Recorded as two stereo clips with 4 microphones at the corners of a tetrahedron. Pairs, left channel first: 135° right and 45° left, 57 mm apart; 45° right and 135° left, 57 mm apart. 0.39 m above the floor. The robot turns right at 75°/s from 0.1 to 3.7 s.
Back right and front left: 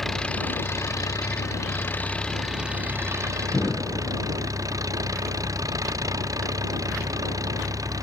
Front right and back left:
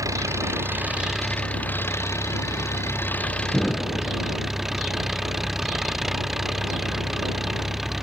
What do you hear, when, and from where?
0.0 s an engine running: 140° left; by 8.1 s 50° left
3.5 s an explosion: 110° right; by 4.2 s 100° right